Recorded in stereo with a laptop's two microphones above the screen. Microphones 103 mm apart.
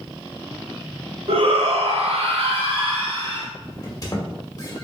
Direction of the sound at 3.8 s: 35° left (ahead or behind).